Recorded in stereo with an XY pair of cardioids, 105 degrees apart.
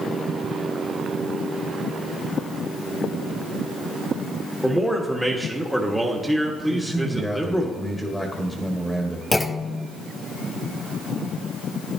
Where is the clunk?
15° left, 0.7 m.